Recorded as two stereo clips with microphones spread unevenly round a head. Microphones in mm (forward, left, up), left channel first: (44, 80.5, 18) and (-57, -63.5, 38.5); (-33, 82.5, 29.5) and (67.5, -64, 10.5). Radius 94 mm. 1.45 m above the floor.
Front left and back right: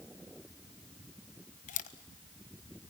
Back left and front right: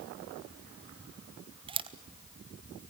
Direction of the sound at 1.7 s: 5° left.